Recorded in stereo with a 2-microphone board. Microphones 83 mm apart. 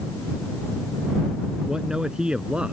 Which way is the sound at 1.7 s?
10° right (ahead or behind).